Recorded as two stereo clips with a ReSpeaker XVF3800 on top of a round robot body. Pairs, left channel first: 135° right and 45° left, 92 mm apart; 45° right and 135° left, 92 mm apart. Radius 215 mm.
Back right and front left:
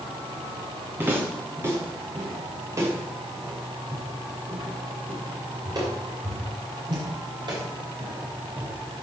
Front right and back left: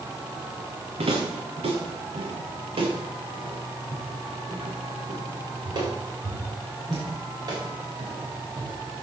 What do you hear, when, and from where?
1.0 s footsteps: 115° left, 3.5 m; by 8.7 s 85° left, 7 m